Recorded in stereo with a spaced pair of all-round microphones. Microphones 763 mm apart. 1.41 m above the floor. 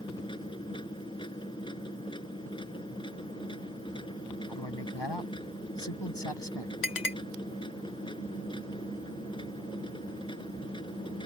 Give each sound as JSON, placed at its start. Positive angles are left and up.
{"t": 0.0, "sound": "a machine running", "side_deg": 5}
{"t": 4.5, "sound": "a man speaking", "side_deg": 35}
{"t": 6.8, "sound": "a clink", "side_deg": 70}